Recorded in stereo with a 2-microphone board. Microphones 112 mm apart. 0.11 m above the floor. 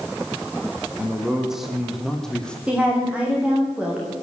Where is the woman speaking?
10° right (ahead or behind), 7 m.